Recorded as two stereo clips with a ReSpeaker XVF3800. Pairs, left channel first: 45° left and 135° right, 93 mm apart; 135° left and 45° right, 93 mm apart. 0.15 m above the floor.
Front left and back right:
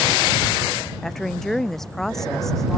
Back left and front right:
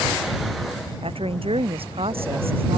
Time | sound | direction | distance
1.0 | a woman speaking | 40° right | ?